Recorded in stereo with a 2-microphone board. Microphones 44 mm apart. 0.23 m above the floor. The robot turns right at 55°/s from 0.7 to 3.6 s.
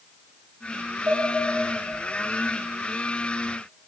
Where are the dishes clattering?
55° right (ahead or behind), 5 m; by 1.2 s 65° right (ahead or behind), 5 m.